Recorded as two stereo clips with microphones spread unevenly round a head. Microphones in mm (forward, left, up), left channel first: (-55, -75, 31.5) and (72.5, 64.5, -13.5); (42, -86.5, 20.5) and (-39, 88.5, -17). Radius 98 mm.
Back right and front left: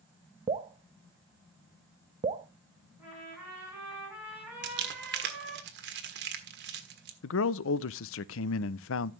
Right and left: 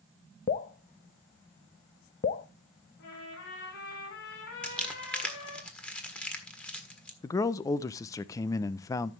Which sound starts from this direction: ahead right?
A trumpet, at 3.0 s.